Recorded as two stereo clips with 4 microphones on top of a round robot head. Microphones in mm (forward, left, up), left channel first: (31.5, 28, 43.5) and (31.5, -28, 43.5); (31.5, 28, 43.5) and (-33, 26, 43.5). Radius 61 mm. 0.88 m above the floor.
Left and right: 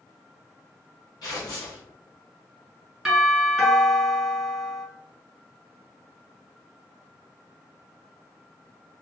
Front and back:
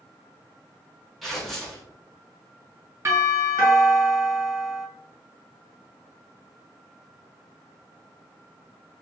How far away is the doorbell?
About 1.8 m.